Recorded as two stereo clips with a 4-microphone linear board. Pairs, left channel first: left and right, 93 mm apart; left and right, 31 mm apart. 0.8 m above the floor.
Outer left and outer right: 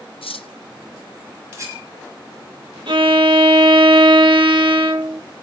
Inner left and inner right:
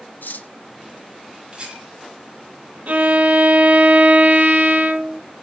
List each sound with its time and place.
0.2 s cutlery clinking: 85° left, 0.8 m
1.5 s a rattle: 35° right (ahead or behind), 6 m
2.9 s a violin: 65° right (ahead or behind), 1.2 m